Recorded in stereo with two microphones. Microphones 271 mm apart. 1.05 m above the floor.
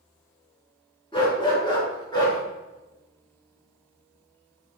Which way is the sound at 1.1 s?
20° left (ahead or behind).